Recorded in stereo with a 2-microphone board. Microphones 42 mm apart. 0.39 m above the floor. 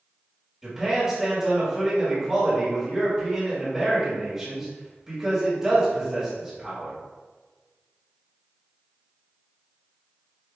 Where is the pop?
I don't hear a pop.